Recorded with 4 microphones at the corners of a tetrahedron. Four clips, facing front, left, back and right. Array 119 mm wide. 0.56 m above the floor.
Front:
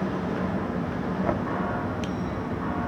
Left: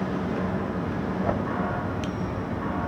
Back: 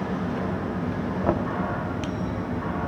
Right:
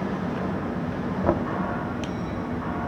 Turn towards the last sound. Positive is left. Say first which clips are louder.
# right 5 dB, back 4 dB
turn(degrees=-115)